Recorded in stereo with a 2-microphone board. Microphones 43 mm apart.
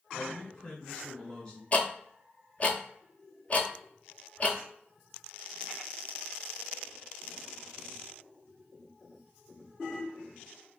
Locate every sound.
0.1 s a man speaking: 20° left (ahead or behind), 1.3 m
1.7 s ticking: 35° left (ahead or behind), 0.5 m